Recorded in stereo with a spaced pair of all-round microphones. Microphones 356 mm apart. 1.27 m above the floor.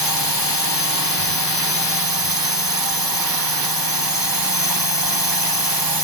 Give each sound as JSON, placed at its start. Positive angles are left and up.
{"t": 0.0, "sound": "a drone", "side_deg": -75}